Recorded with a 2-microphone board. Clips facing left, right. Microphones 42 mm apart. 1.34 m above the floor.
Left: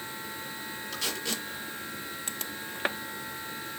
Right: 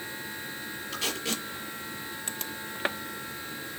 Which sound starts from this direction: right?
Tape being pulled, at 0.9 s.